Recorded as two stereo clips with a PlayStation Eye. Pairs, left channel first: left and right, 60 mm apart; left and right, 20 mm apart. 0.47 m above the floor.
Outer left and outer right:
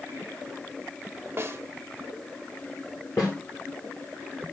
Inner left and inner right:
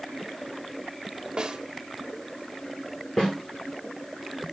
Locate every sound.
1.4 s a snare drum: 40° right (ahead or behind), 1.5 m
3.2 s a snare drum: 50° left (ahead or behind), 7.5 m